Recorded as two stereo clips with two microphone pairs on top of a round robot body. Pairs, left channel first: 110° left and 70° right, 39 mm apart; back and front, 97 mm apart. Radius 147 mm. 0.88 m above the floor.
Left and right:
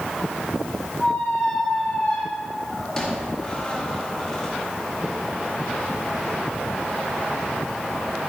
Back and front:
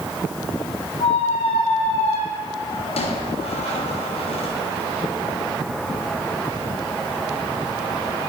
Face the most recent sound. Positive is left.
turn(degrees=180)